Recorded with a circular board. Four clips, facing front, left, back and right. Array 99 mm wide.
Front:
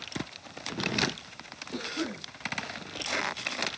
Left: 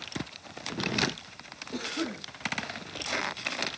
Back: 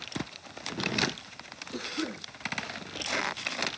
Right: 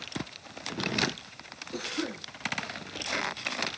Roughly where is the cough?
Ahead left.